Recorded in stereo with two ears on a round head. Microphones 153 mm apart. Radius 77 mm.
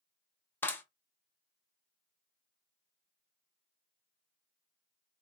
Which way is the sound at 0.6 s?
10° left (ahead or behind).